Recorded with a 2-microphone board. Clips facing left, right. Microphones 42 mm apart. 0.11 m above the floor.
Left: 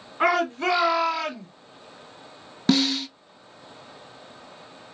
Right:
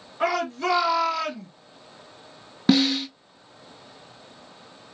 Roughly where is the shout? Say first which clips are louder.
Left 3 dB; left.